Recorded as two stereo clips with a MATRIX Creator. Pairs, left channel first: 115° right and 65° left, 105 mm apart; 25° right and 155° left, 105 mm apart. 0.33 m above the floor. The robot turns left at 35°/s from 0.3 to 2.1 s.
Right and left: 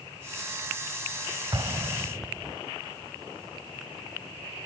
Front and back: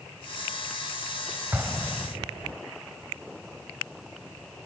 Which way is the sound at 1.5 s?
95° left.